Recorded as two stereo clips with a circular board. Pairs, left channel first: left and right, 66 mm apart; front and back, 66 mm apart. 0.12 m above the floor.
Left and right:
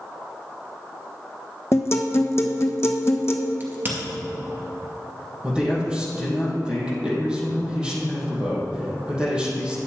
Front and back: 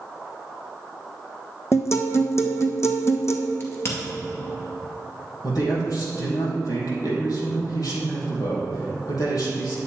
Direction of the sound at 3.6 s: 40° right.